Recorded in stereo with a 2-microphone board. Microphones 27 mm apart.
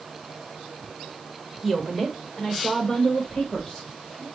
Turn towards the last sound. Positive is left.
turn(degrees=20)  # may be behind; listen again after turning